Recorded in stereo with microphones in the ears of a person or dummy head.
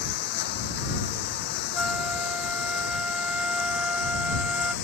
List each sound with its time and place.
0.0 s a lawn mower: 50° left (ahead or behind); by 4.8 s 55° left (ahead or behind)
1.7 s a flute: 5° right (ahead or behind)